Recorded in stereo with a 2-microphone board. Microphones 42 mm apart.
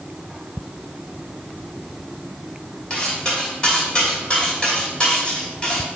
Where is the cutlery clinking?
20° left (ahead or behind), 3 m.